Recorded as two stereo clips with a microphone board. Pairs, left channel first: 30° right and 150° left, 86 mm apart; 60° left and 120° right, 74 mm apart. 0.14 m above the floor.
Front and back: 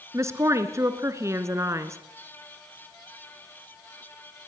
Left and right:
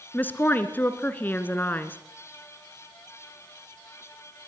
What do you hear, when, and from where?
0.1 s a woman speaking: 115° left, 1.8 m